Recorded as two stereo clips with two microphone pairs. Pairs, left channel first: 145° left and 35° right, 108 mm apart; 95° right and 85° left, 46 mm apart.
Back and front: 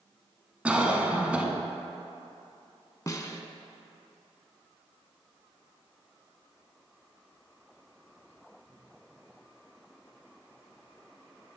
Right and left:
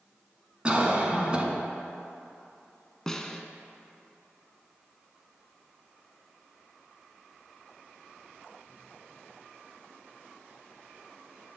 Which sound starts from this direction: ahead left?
A cough, at 0.7 s.